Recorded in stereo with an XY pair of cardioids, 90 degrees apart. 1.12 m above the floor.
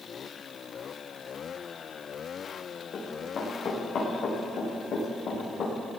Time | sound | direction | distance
2.9 | running footsteps | 60° left | 6 m